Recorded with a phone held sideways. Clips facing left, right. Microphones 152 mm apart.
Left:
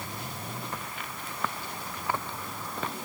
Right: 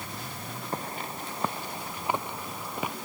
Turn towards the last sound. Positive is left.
turn(degrees=-10)  # may be behind; listen again after turning